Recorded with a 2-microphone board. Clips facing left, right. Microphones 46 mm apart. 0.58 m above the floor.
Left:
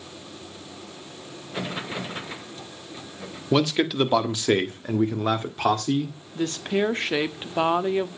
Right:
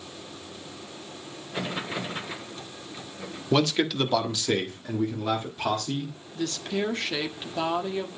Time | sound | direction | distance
3.5 | a man speaking | 5° left (ahead or behind) | 1.4 m
6.3 | a woman speaking | 30° left (ahead or behind) | 1.1 m